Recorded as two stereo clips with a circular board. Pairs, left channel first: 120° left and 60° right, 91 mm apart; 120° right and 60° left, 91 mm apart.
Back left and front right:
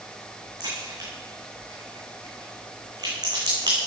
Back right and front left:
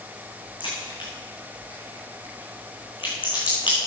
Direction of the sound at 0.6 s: 100° right.